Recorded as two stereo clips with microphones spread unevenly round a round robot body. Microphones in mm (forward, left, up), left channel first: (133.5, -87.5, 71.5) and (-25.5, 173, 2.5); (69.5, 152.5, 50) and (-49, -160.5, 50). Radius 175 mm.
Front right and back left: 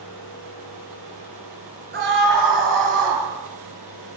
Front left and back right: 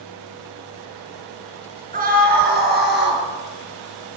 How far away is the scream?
About 8 m.